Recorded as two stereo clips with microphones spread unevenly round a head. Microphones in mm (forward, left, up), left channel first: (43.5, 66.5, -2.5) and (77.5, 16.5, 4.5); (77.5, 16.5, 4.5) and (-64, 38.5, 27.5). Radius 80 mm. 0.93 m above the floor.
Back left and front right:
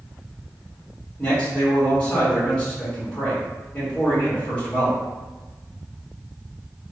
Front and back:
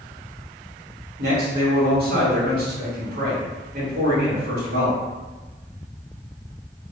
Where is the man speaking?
165° right, 1.7 m.